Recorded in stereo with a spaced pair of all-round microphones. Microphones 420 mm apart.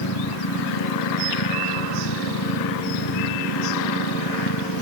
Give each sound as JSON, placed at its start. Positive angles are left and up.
{"t": 0.0, "sound": "a machine running", "side_deg": 85}